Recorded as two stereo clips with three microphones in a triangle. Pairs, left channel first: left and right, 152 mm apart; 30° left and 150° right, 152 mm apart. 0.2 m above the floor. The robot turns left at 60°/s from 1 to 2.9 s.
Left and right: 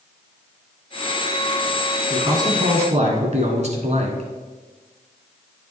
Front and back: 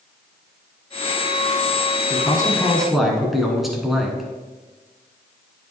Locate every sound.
2.1 s a man speaking: 15° right, 1.6 m; by 4.3 s 60° right, 1.6 m